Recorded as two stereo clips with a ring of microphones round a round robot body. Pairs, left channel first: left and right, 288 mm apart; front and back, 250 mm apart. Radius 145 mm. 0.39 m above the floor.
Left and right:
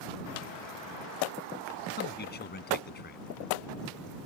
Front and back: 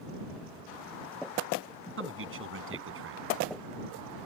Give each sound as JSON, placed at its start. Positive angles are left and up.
{"t": 2.0, "sound": "a man speaking", "azimuth_deg": 145}